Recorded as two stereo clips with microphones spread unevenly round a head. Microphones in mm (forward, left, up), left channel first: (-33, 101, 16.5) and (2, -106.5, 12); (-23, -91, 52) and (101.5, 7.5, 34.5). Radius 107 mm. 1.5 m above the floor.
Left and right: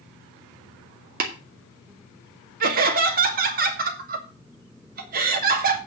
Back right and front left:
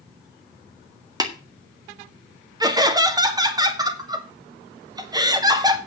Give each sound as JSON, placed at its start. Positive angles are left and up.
{"t": 1.2, "sound": "tapping", "azimuth_deg": -30, "distance_m": 1.9}
{"t": 2.6, "sound": "laughter", "azimuth_deg": -30, "distance_m": 2.5}